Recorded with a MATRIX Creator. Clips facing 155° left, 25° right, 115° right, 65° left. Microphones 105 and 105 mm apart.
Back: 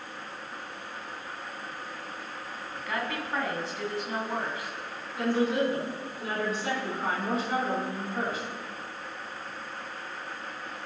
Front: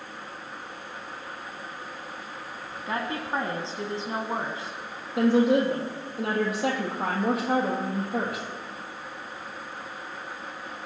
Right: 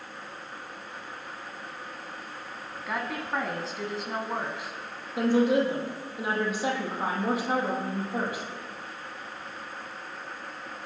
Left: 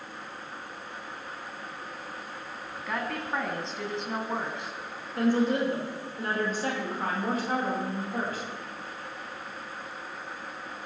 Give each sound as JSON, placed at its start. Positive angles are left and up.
{"t": 2.9, "sound": "a woman speaking", "azimuth_deg": -30, "distance_m": 1.4}
{"t": 5.2, "sound": "a woman speaking", "azimuth_deg": -35, "distance_m": 4.5}